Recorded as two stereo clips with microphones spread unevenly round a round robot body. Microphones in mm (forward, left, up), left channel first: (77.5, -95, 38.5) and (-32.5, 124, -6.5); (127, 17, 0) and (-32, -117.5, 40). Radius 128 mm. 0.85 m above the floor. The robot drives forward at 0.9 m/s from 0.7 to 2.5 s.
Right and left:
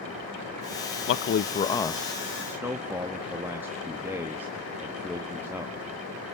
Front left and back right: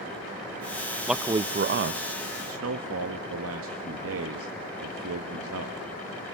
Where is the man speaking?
35° right, 0.6 m; by 5.8 s 165° right, 1.1 m.